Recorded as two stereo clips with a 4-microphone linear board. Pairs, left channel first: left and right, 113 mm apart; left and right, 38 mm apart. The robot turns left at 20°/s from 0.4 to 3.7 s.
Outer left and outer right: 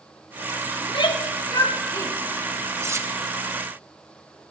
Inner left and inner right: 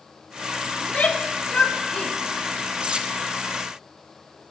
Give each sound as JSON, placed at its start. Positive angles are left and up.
{"t": 0.8, "sound": "a shout", "side_deg": 45, "distance_m": 1.1}
{"t": 2.8, "sound": "cutlery clinking", "side_deg": -25, "distance_m": 0.8}